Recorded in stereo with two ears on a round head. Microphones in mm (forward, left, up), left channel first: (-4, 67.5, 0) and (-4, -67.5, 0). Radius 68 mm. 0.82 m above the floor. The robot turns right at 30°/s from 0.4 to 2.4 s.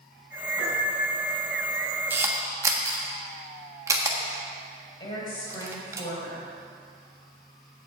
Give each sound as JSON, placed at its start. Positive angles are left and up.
{"t": 0.6, "sound": "a piano", "side_deg": -10, "distance_m": 5.0}
{"t": 2.1, "sound": "a camera shutter", "side_deg": -15, "distance_m": 1.4}
{"t": 5.0, "sound": "a woman speaking", "side_deg": 30, "distance_m": 4.0}